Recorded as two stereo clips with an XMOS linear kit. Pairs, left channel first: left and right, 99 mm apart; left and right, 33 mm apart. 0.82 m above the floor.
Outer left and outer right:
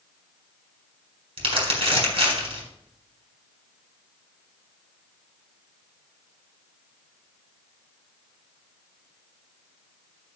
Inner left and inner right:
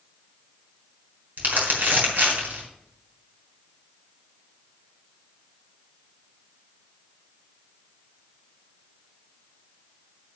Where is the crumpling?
75° right (ahead or behind), 4.5 m.